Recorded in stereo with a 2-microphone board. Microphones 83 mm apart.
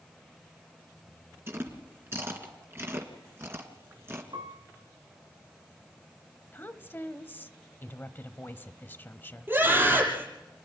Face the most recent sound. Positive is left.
turn(degrees=-25)  # may be behind; listen again after turning